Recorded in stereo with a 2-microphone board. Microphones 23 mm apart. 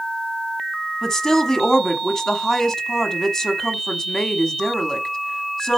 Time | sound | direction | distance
1.0 | a woman speaking | 25° left (ahead or behind) | 1.1 m